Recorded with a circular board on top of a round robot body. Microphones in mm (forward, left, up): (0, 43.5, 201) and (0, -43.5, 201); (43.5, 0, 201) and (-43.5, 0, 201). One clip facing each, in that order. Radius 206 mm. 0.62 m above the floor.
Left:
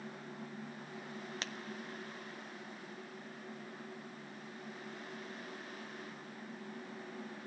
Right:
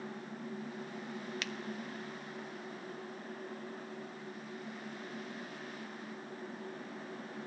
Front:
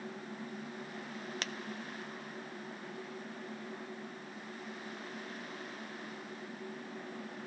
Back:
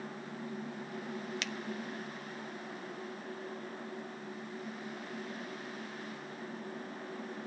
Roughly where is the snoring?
No snoring in this recording.